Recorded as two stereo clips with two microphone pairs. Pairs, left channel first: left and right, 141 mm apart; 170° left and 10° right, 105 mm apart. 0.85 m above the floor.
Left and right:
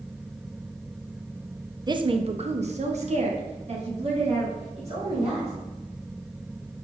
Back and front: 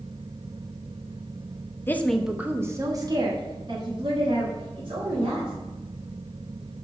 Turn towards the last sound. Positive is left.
turn(degrees=-45)